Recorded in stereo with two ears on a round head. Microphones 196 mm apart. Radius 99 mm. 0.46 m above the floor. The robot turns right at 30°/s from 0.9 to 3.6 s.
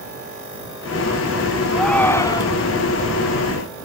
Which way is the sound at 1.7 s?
Centre (ahead or behind).